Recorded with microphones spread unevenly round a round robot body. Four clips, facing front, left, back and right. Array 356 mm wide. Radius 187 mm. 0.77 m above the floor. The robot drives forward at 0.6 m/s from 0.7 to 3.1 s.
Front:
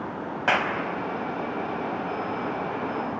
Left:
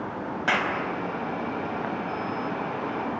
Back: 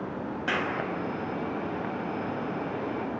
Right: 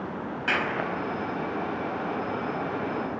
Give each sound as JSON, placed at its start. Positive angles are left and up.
{"t": 0.5, "sound": "a clap", "azimuth_deg": 15, "distance_m": 4.5}